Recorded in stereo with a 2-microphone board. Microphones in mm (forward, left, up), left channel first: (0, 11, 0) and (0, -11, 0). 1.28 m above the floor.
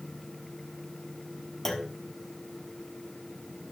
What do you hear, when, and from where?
1.6 s a clunk: 15° left (ahead or behind), 1.1 m